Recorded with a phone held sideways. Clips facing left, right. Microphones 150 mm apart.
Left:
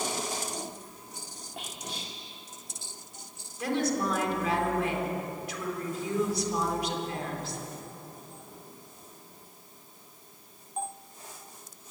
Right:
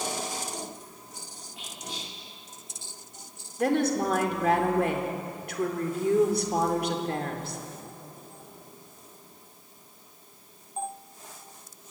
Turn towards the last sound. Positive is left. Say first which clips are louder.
# right 4 dB
turn(degrees=-55)  # may be behind; listen again after turning